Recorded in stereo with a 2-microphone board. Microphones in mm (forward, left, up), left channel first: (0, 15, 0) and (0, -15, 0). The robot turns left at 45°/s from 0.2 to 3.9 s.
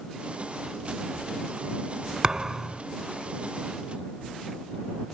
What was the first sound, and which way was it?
A thud, 30° right (ahead or behind).